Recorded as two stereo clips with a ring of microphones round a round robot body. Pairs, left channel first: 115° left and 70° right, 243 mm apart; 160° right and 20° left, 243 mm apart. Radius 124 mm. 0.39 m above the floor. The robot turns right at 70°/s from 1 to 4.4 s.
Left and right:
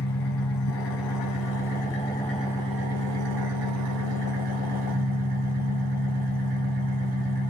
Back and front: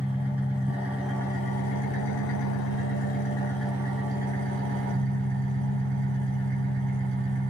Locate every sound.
0.0 s an engine running: 105° left, 1.5 m; by 7.5 s 15° right, 1.5 m